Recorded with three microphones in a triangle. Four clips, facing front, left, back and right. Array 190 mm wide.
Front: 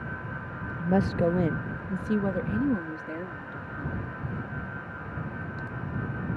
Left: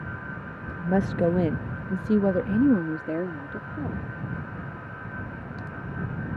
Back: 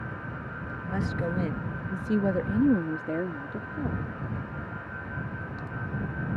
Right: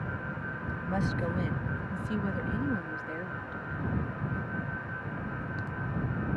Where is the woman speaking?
40° left; by 4.0 s 130° left.